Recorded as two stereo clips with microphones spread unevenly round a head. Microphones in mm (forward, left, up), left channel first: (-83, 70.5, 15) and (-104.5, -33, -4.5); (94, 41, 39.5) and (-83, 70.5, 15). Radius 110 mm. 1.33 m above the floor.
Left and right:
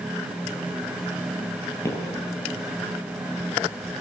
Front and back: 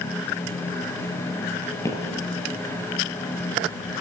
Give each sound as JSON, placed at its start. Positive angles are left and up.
{"t": 1.9, "sound": "footsteps", "azimuth_deg": 45, "distance_m": 1.7}